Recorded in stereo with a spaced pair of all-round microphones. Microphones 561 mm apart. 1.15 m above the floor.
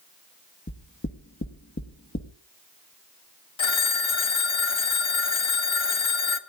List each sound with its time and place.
0.7 s knocking: 20° left (ahead or behind), 1.4 m
3.6 s a phone ringing: 55° left (ahead or behind), 0.8 m